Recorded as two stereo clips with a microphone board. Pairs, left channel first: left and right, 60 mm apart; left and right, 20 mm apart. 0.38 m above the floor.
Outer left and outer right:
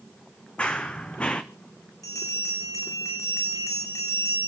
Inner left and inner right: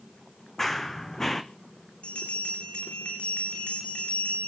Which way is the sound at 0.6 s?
15° left (ahead or behind).